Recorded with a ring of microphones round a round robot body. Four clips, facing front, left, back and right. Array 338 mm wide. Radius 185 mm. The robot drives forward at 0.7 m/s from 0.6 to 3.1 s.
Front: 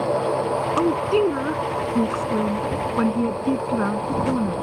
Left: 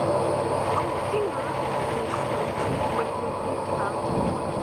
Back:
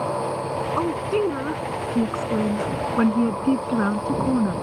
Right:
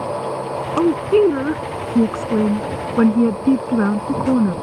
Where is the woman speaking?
80° right; by 4.5 s 100° right.